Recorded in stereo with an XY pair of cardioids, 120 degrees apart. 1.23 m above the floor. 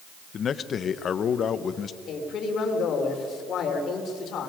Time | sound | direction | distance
0.3 | a man speaking | 45° left | 1.0 m
2.1 | a man speaking | 60° left | 3.5 m